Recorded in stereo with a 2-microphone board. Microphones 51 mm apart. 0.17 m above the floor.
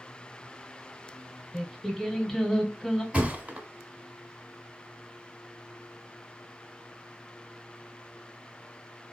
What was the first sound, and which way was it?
Singing, 5° left (ahead or behind).